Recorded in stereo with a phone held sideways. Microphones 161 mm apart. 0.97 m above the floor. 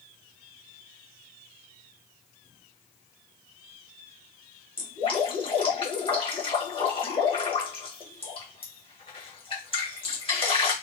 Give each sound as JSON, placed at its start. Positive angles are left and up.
{"t": 4.8, "sound": "dripping", "side_deg": 35, "distance_m": 1.1}